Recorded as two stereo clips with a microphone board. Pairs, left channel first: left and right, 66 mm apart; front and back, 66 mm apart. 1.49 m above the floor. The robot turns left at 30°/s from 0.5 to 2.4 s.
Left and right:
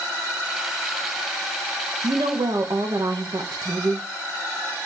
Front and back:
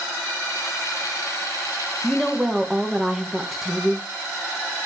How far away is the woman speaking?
About 1.2 m.